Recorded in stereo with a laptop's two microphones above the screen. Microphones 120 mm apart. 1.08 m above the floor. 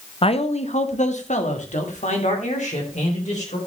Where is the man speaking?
50° left (ahead or behind), 0.8 m; by 3.6 s 85° left, 4 m.